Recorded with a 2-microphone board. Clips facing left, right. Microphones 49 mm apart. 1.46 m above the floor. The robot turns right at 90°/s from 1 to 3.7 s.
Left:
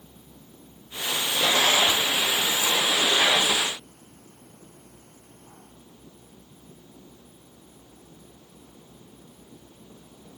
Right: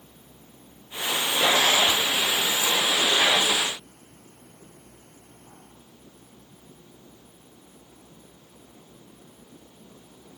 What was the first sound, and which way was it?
Only background noise.